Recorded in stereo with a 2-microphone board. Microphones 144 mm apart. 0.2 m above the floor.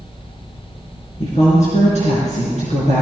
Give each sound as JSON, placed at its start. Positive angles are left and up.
{"t": 1.2, "sound": "a woman speaking", "side_deg": 60, "distance_m": 3.0}